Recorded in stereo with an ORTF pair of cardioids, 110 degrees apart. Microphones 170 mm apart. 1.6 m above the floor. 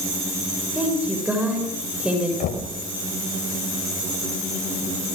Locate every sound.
0.8 s a woman speaking: 5° right, 7 m
2.4 s knocking: 65° left, 4.5 m